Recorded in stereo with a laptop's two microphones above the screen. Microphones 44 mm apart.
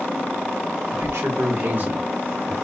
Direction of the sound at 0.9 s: 70° right (ahead or behind).